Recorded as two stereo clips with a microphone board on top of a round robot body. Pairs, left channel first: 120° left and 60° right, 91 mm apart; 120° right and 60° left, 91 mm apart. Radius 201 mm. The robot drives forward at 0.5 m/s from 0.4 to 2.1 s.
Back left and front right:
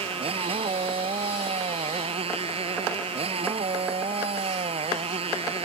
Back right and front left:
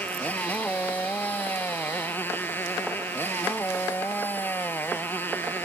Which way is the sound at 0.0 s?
45° right.